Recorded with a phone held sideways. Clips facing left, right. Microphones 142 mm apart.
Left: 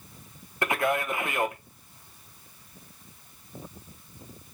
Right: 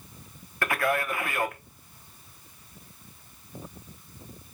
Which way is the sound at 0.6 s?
20° left (ahead or behind).